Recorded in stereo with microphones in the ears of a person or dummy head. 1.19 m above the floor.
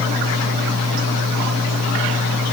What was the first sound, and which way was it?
Only background noise.